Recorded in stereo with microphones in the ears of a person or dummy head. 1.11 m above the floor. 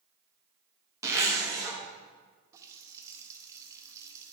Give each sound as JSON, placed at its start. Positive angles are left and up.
{"t": 1.0, "sound": "a zipper", "side_deg": -20, "distance_m": 1.6}
{"t": 2.5, "sound": "a running tap", "side_deg": -20, "distance_m": 0.8}